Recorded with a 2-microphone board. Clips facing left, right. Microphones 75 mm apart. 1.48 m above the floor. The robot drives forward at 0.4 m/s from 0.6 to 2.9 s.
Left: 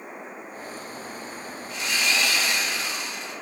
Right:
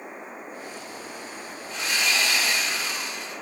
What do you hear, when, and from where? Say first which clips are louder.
1.7 s sawing: even; 35° right (ahead or behind), 2.0 m; by 3.3 s 30° right (ahead or behind), 2.5 m